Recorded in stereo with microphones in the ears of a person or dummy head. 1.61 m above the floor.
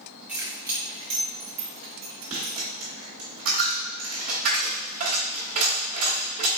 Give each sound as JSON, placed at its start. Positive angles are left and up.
{"t": 0.3, "sound": "keys jangling", "side_deg": -5, "distance_m": 1.2}
{"t": 2.3, "sound": "a dropped coin", "side_deg": -45, "distance_m": 1.9}